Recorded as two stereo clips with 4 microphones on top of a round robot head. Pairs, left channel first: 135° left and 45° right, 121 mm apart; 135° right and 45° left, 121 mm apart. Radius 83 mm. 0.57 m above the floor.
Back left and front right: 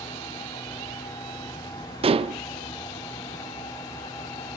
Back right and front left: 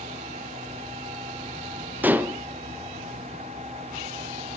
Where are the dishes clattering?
25° right, 0.6 m.